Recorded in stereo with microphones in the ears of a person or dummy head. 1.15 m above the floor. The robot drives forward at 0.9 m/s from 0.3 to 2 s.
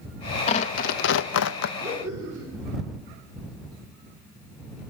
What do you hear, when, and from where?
0.5 s tearing paper: 35° left (ahead or behind), 0.9 m; by 1.7 s 60° left (ahead or behind), 0.6 m
1.8 s laughter: 15° right (ahead or behind), 9.5 m